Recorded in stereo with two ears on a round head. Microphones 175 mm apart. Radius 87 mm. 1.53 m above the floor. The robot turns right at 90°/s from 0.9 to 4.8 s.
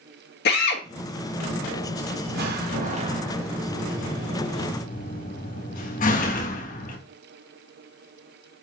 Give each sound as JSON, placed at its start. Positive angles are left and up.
{"t": 0.5, "sound": "a drill", "side_deg": 55, "distance_m": 1.5}
{"t": 2.3, "sound": "a door slam", "side_deg": -50, "distance_m": 1.2}